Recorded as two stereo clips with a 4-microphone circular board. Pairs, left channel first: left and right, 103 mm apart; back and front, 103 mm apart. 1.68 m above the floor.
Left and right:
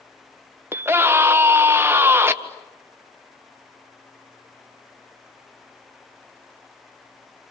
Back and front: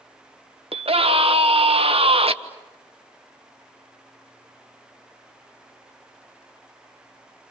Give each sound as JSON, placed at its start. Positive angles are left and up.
{"t": 0.7, "sound": "a scream", "azimuth_deg": -20, "distance_m": 1.6}